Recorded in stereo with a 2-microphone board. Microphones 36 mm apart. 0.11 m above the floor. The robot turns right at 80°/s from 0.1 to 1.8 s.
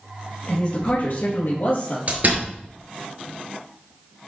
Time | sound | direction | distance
0.5 | a man speaking | 25° left | 3 m
2.1 | a door slam | 50° right (ahead or behind) | 1.7 m